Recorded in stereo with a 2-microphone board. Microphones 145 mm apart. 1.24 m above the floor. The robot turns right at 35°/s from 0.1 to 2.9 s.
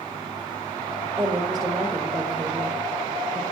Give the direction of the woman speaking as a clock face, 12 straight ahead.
1 o'clock.